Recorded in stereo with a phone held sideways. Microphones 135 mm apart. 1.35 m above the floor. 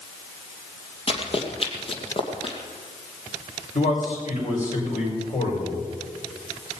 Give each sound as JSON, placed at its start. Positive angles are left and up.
{"t": 1.1, "sound": "running footsteps", "side_deg": 45, "distance_m": 2.5}
{"t": 3.8, "sound": "a man speaking", "side_deg": 70, "distance_m": 6.0}